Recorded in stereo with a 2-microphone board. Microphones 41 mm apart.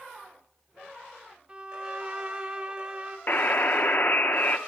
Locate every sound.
1.5 s a violin: 25° right (ahead or behind), 0.8 m
3.3 s a buzzer: 50° left (ahead or behind), 0.7 m